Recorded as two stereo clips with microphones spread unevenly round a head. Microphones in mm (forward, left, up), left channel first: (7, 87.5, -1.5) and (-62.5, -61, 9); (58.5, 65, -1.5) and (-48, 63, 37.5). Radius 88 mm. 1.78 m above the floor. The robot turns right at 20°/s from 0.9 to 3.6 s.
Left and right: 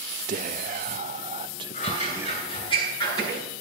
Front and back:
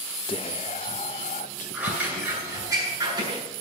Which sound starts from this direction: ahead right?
Whispering, at 0.3 s.